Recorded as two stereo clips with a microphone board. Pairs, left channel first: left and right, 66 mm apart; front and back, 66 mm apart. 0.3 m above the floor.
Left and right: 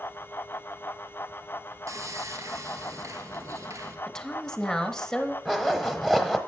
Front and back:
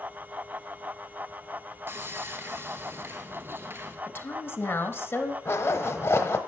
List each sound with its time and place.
1.9 s sawing: 125° right, 1.7 m
4.1 s a woman speaking: 15° left, 1.1 m
5.5 s a zipper: 5° right, 1.2 m